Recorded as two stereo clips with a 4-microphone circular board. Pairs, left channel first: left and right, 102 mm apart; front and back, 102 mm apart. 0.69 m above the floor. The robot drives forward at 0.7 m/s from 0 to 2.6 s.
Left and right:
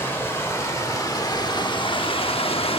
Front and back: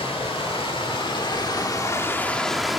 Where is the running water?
25° left, 2 m; by 2.8 s 90° left, 0.9 m.